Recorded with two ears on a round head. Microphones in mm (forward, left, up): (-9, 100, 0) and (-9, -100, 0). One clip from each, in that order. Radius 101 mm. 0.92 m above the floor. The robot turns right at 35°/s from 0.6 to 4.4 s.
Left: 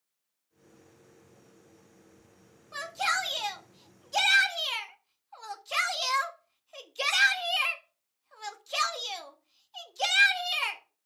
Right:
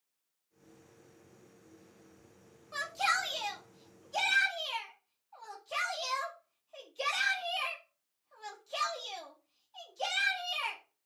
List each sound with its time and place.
2.7 s a shout: 5° right (ahead or behind), 1.5 m; by 10.8 s 50° left (ahead or behind), 1.5 m